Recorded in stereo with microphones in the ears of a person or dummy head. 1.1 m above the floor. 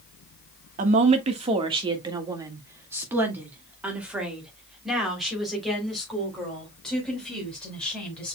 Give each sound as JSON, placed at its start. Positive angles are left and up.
{"t": 0.8, "sound": "a woman speaking", "side_deg": -45, "distance_m": 1.4}